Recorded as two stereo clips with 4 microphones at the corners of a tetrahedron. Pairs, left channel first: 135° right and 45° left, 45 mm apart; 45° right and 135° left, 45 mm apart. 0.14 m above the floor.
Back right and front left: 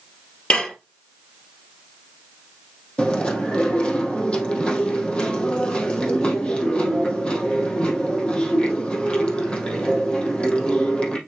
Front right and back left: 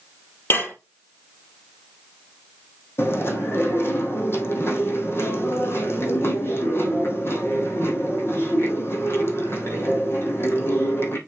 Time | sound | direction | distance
0.5 | dishes clattering | 70° right | 2.5 m
3.0 | chewing | 70° right | 3 m